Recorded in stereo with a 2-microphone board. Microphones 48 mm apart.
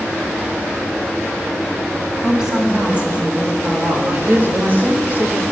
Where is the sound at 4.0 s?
40° right (ahead or behind), 1.1 m.